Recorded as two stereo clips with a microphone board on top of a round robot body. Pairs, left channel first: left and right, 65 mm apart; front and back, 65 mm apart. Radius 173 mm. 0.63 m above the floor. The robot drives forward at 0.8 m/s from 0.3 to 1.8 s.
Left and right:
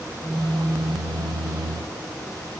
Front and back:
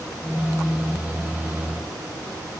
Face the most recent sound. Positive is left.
No sound to turn to.